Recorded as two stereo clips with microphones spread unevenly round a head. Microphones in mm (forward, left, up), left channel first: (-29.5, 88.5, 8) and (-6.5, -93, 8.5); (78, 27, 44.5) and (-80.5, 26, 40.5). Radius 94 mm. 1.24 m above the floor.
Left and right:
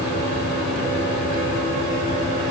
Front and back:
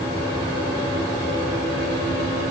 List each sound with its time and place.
Only background noise.